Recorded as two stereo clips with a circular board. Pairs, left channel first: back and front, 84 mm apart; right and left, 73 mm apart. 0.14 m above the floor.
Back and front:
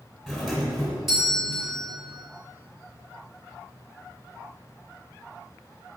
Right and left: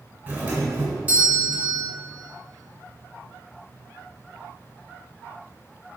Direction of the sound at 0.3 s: 80° left.